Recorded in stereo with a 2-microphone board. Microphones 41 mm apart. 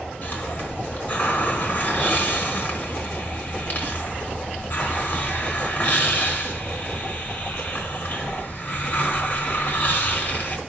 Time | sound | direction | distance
0.2 | a hiss | 40° left (ahead or behind) | 4 m